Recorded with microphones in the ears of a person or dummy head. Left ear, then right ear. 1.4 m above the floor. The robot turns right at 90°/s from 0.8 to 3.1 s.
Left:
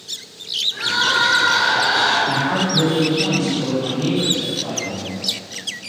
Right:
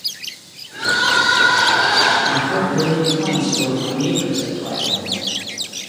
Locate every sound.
0.7 s crying: 165° left, 1.7 m; by 2.1 s 75° right, 1.7 m
2.2 s a man speaking: 130° left, 1.8 m; by 5.2 s 150° right, 1.8 m